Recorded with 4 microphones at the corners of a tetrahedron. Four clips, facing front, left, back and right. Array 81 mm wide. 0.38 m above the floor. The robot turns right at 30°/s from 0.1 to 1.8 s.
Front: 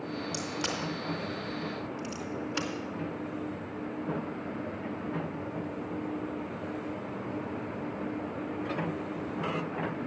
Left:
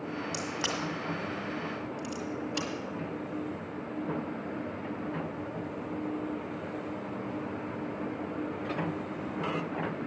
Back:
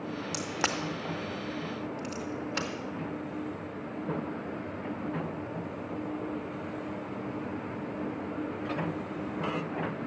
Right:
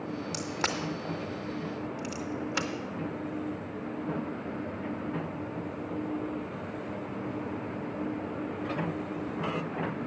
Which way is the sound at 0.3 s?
165° right.